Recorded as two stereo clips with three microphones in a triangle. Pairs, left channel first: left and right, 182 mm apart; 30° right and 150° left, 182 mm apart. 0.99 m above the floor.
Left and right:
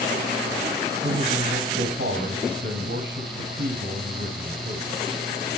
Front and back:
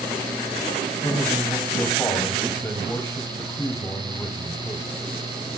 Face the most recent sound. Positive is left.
turn(degrees=-105)